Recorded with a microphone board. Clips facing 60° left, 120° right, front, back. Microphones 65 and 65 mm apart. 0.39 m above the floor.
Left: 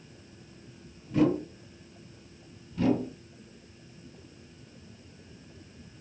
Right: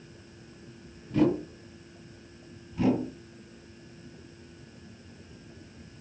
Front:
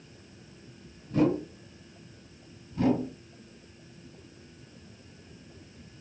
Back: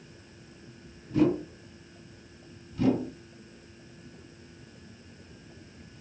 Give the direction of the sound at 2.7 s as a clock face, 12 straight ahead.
1 o'clock.